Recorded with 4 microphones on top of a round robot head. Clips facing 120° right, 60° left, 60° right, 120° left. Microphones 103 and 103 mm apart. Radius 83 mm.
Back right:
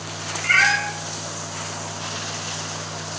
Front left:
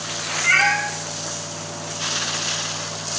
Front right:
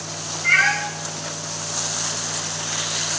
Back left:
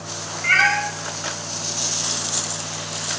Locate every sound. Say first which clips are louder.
0.4 s a cat meowing: even, back left 1 dB; 110° left, 4.5 m